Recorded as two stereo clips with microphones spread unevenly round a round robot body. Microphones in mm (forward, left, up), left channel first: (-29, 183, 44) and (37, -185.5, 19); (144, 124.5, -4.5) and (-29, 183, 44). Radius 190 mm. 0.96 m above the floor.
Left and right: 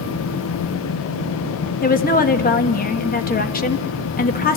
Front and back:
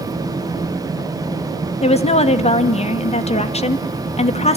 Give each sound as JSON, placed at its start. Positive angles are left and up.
{"t": 1.8, "sound": "a woman speaking", "azimuth_deg": 30, "distance_m": 1.6}